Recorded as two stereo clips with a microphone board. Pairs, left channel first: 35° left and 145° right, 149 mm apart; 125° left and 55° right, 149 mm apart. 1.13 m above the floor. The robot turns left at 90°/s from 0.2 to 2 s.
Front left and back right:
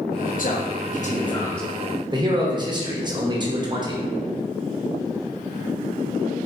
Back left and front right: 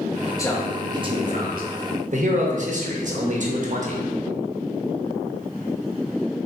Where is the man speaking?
60° left, 0.8 m; by 4.0 s 85° right, 0.8 m.